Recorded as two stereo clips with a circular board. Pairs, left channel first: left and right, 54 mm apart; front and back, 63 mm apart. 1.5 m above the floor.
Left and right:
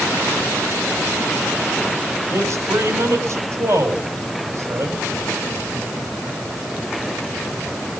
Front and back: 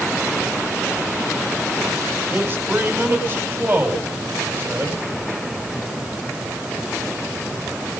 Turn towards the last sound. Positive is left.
turn(degrees=-120)